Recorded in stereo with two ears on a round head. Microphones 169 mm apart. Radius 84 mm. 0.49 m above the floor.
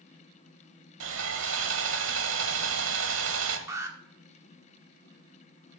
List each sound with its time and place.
1.0 s sawing: 75° right (ahead or behind), 1.4 m
3.7 s an alarm: 15° right (ahead or behind), 1.4 m